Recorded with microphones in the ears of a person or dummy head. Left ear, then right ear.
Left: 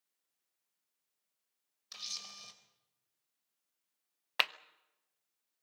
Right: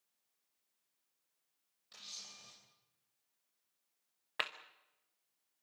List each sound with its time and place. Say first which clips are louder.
1.9 s a camera shutter: left 7 dB; 65° left (ahead or behind), 3.5 m
4.4 s a clap: left 7 dB; 35° left (ahead or behind), 0.8 m